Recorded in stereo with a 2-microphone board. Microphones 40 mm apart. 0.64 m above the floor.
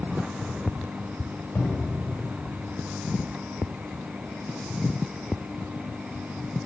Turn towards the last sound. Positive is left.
turn(degrees=60)  # may be behind; listen again after turning